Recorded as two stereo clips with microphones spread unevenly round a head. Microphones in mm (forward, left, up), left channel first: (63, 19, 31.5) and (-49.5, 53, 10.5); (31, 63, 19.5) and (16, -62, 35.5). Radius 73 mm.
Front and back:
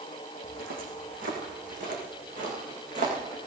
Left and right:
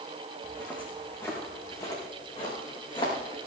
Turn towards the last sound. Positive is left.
turn(degrees=140)